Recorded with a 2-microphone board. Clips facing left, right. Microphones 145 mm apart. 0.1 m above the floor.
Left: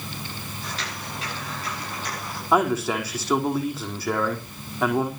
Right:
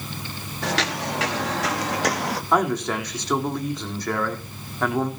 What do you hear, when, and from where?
0.6 s footsteps: 85° right, 4.5 m
2.5 s a man speaking: 5° left (ahead or behind), 5 m